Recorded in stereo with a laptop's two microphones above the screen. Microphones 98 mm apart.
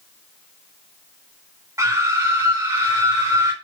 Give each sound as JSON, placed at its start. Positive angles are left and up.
{"t": 1.8, "sound": "a scream", "side_deg": -30, "distance_m": 5.5}